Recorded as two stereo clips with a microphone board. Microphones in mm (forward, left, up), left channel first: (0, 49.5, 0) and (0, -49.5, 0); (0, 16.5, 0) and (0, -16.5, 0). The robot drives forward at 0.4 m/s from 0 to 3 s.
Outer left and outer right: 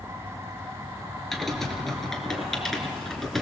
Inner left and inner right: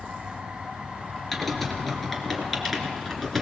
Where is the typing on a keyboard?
5° left (ahead or behind), 3 m.